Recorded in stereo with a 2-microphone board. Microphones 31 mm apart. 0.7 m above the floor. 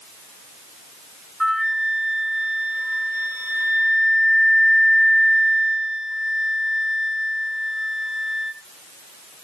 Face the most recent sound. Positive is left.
turn(degrees=15)  # may be behind; listen again after turning